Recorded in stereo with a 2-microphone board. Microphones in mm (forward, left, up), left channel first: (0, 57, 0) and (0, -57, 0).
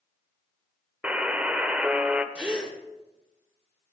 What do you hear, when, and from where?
1.0 s a buzzer: 10° right (ahead or behind), 0.8 m
2.4 s a gasp: 10° right (ahead or behind), 2.5 m